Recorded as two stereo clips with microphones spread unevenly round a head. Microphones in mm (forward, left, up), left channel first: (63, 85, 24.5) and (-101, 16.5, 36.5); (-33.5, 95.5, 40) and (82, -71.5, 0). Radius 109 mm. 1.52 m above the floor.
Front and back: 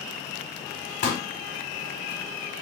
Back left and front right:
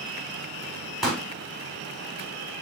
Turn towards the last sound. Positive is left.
turn(degrees=45)